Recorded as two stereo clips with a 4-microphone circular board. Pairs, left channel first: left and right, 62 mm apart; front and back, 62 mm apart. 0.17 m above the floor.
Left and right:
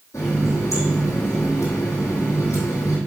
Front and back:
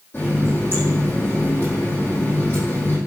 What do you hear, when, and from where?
0.1 s a running tap: 50° left, 4 m